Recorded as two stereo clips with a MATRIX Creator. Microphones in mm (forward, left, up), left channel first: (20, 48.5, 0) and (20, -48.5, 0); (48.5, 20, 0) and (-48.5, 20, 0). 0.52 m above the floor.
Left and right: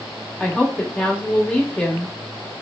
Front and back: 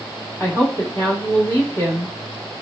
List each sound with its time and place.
0.4 s a woman speaking: 20° left, 1.0 m